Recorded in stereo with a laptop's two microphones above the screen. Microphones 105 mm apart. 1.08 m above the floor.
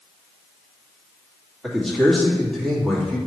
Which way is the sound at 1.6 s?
5° left (ahead or behind).